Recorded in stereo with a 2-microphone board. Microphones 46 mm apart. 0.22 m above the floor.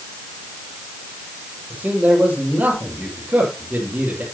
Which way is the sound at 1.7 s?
40° right (ahead or behind).